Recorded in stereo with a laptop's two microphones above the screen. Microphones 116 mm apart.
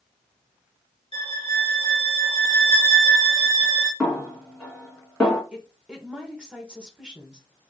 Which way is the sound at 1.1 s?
65° right (ahead or behind).